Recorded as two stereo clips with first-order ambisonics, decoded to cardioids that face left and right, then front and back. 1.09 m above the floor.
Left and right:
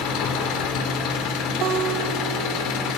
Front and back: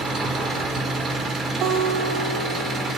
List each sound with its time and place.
0.0 s an engine running: 115° left, 3 m
1.6 s a guitar: 130° right, 3 m